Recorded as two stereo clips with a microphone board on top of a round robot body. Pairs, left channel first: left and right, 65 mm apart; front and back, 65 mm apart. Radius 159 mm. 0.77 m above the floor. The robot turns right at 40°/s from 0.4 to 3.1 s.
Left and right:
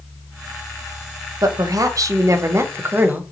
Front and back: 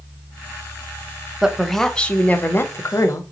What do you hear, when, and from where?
1.4 s a woman speaking: 100° right, 0.8 m; by 3.2 s 30° right, 0.8 m